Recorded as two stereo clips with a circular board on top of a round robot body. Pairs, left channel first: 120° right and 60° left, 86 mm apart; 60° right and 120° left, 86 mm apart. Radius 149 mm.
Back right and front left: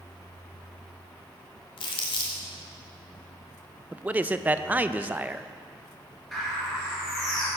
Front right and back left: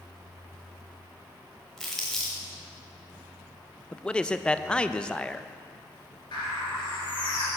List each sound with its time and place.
1.8 s crumpling: 145° right, 0.9 m
3.9 s a man speaking: 5° left, 0.6 m
6.3 s a bird: 30° right, 2.5 m